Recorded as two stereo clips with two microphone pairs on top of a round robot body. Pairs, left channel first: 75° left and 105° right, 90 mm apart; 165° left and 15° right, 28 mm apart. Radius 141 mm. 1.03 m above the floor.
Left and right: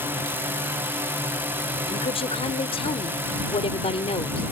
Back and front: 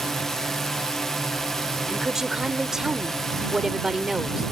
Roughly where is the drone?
Behind right.